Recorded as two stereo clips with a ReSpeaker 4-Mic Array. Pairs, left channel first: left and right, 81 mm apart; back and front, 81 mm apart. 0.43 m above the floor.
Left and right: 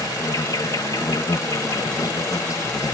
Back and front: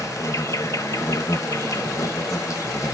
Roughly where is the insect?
Behind left.